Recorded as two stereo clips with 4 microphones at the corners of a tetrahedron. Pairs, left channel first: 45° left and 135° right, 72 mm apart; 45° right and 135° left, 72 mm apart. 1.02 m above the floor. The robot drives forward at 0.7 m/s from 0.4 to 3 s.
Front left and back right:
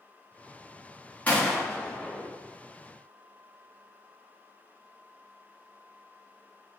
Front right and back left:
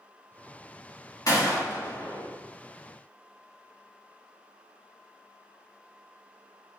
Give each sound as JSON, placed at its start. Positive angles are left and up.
{"t": 1.3, "sound": "a gunshot", "azimuth_deg": -20, "distance_m": 2.5}